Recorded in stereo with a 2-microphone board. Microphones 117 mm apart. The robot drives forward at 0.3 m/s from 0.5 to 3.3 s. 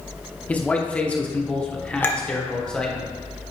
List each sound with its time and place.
0.5 s a man speaking: 10° left (ahead or behind), 0.8 m
2.0 s a clink: 20° left (ahead or behind), 1.0 m; by 2.2 s 15° left (ahead or behind), 1.0 m